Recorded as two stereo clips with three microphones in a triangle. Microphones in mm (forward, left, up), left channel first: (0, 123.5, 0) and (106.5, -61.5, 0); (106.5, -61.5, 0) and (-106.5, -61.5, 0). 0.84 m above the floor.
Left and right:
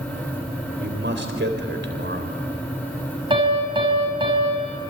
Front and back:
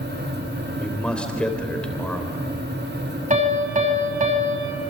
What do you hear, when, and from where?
0.8 s a man speaking: 85° right, 3.5 m
3.3 s a piano: 125° right, 5.5 m